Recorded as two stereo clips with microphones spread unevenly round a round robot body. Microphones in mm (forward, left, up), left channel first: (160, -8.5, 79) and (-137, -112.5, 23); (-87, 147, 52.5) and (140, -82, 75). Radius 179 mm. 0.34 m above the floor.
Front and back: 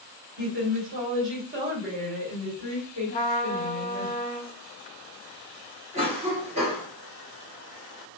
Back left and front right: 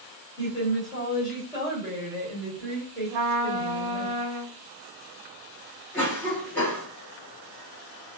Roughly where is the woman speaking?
Behind right.